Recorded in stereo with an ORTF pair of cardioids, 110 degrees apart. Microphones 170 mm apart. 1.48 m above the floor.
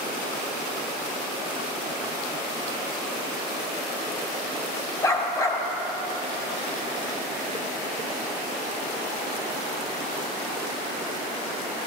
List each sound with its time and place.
5.0 s a dog barking: 20° left, 3 m